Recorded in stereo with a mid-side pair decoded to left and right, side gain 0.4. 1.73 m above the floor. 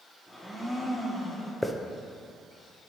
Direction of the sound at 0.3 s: Straight ahead.